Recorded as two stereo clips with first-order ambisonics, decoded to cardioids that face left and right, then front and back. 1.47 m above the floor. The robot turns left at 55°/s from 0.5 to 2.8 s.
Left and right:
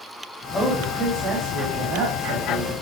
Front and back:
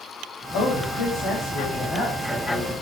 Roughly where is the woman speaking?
Ahead.